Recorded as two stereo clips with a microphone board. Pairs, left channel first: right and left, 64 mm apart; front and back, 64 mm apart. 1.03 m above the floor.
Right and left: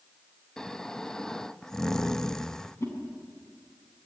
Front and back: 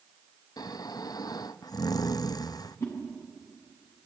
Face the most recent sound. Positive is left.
turn(degrees=-40)